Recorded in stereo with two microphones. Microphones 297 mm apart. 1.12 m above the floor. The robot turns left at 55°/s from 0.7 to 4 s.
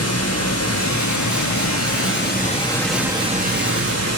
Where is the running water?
120° left, 0.9 m; by 4.2 s 60° right, 0.9 m.